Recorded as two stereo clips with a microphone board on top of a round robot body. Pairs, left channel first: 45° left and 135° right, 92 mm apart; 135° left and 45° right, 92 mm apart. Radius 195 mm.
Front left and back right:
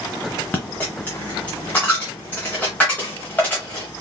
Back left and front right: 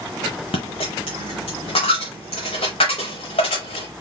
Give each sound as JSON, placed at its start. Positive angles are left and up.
{"t": 0.5, "sound": "a dropped coin", "azimuth_deg": 115, "distance_m": 0.7}